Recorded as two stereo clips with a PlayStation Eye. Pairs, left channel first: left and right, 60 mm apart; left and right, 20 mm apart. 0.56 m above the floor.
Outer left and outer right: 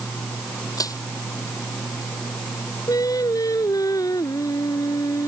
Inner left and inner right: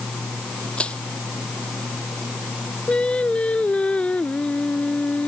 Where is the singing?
75° left (ahead or behind).